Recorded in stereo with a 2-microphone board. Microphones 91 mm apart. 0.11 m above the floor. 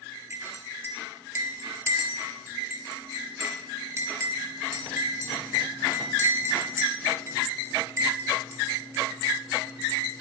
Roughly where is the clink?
Right.